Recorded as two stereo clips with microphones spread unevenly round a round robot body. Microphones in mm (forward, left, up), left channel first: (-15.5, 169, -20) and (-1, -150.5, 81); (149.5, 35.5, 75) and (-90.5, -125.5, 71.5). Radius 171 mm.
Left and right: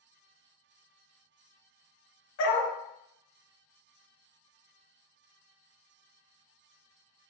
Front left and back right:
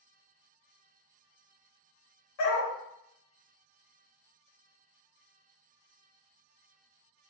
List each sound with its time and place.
2.4 s a dog barking: 45° left, 1.1 m